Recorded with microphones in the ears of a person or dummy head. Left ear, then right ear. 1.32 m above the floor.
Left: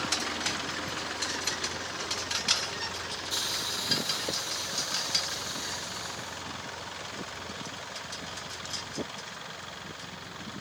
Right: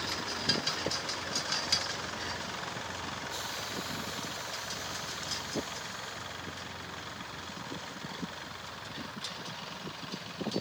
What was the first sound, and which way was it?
A hiss, 40° left (ahead or behind).